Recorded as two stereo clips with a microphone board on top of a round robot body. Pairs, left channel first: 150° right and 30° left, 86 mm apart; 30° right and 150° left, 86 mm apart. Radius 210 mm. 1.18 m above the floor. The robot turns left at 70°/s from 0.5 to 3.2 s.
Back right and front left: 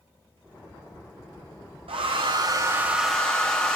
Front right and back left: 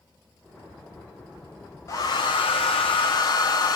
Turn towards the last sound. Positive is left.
turn(degrees=-70)